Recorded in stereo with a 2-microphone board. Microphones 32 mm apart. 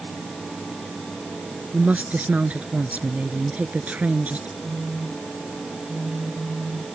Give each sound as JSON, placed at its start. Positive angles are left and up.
{"t": 1.7, "sound": "a woman speaking", "side_deg": -50}
{"t": 4.6, "sound": "a phone buzzing", "side_deg": -80}